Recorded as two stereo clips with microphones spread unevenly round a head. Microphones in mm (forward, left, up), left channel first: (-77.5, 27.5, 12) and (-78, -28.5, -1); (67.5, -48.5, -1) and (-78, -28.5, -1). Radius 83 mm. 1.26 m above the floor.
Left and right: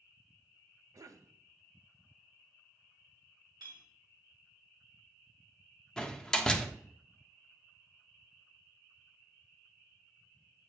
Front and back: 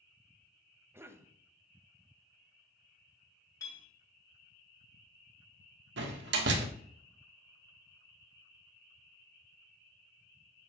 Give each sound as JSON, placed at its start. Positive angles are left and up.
{"t": 0.9, "sound": "a cough", "azimuth_deg": -115, "distance_m": 0.9}
{"t": 3.6, "sound": "a clink", "azimuth_deg": -75, "distance_m": 3.0}
{"t": 6.0, "sound": "a door slam", "azimuth_deg": 170, "distance_m": 1.2}